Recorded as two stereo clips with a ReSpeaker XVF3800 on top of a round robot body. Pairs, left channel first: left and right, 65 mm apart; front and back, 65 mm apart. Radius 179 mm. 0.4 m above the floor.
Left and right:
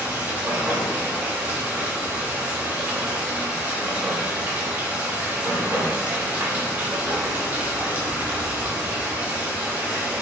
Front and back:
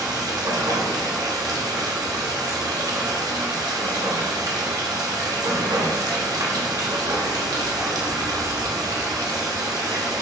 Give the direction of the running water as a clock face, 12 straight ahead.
5 o'clock.